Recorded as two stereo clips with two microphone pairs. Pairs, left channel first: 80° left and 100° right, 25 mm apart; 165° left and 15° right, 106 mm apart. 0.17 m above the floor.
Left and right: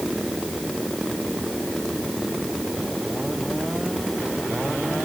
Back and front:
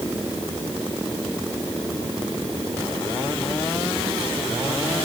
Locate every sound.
Only background noise.